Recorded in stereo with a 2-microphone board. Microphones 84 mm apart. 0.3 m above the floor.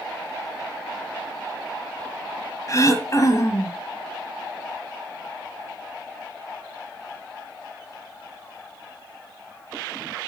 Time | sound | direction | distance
2.7 | throat clearing | 40° left (ahead or behind) | 1.1 m